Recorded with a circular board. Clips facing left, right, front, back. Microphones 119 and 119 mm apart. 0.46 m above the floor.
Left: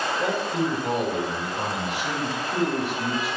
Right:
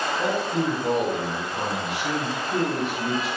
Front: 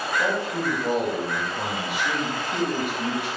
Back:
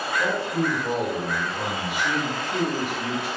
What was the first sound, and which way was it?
A man speaking, 70° right.